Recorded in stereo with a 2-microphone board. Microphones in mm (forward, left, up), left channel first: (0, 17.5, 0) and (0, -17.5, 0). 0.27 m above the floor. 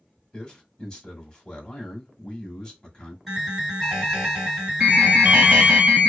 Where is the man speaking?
20° left (ahead or behind), 1.3 m.